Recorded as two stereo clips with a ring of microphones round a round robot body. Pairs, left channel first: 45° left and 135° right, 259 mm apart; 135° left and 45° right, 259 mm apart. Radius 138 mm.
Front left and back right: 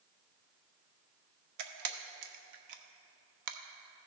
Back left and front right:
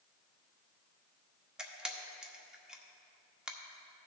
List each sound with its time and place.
1.6 s a camera shutter: 130° right, 0.8 m